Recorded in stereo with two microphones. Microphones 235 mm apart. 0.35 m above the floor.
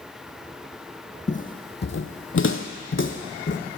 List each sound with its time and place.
1.3 s footsteps: 30° left (ahead or behind), 0.7 m; by 3.6 s 50° left (ahead or behind), 1.0 m